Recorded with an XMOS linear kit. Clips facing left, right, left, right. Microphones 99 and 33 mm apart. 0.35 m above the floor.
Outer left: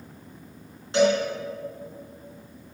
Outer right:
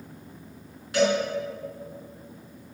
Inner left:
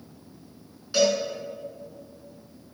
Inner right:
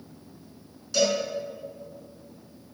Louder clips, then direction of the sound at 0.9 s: Outer left 2 dB, inner left 2 dB; 30° left (ahead or behind).